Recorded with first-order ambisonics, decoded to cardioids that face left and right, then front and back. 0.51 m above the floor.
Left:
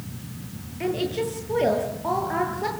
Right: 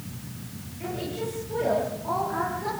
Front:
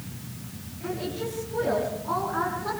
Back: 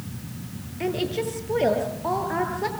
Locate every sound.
0.8 s a woman speaking: 145° left, 9.5 m